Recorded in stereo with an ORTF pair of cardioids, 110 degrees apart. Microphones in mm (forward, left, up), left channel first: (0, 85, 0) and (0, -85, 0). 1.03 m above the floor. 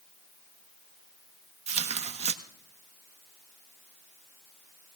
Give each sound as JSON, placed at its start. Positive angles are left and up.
{"t": 1.7, "sound": "tearing paper", "azimuth_deg": -40, "distance_m": 1.2}